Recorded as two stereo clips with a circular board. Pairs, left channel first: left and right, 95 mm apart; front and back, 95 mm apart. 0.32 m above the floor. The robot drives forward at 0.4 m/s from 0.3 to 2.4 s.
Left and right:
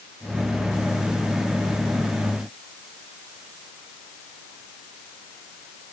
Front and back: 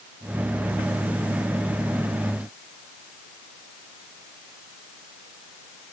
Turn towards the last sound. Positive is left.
No sound to turn to.